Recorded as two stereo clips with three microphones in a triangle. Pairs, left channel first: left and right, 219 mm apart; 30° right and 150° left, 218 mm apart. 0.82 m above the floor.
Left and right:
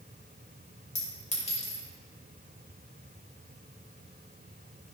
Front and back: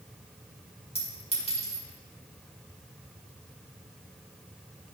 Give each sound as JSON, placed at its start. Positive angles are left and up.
{"t": 0.9, "sound": "a clink", "azimuth_deg": 30, "distance_m": 2.5}